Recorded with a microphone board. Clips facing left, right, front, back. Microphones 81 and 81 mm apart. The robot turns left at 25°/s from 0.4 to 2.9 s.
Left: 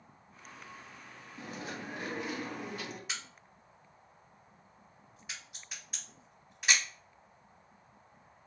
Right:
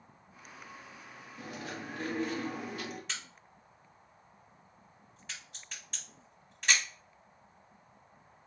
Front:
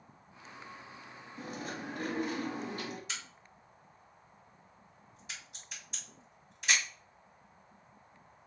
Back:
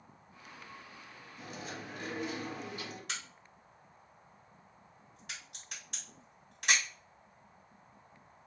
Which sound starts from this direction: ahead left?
Chewing, at 1.4 s.